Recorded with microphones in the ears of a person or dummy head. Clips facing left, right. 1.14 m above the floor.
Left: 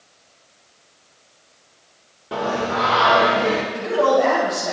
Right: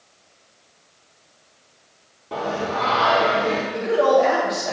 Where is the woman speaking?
20° right (ahead or behind), 3 m.